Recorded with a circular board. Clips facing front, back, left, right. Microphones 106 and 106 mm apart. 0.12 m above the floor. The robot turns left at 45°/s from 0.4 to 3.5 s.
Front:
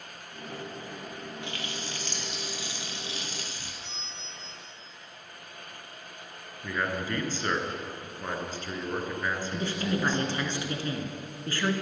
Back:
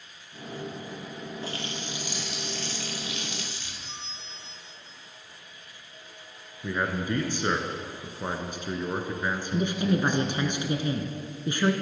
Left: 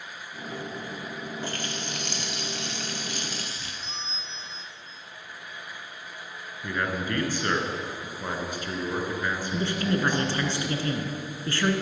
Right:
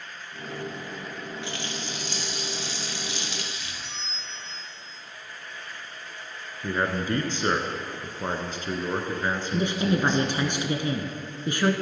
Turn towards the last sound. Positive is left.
turn(degrees=-135)